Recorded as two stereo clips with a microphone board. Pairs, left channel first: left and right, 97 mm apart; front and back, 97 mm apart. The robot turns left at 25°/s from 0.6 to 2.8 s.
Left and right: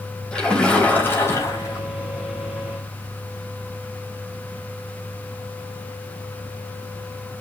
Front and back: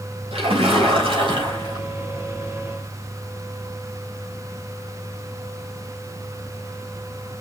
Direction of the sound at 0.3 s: 170° left.